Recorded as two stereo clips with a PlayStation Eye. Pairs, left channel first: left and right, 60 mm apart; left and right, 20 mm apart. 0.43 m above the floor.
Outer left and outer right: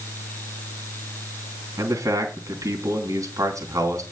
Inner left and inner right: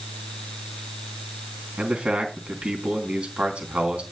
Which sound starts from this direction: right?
A man speaking, at 1.8 s.